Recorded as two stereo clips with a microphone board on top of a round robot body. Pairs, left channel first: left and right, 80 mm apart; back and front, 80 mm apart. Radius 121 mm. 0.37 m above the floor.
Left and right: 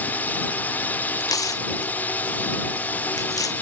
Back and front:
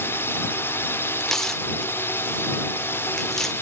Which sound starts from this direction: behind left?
A drone, at 0.0 s.